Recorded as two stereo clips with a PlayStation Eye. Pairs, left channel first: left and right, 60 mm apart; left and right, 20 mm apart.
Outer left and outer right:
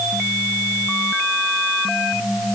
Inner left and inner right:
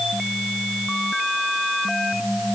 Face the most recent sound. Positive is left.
No sound to turn to.